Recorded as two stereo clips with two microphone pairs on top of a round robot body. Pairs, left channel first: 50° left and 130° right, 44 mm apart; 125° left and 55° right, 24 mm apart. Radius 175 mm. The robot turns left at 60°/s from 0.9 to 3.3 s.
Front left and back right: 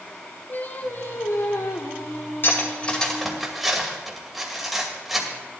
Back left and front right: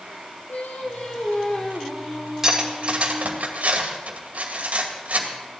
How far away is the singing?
About 1.7 m.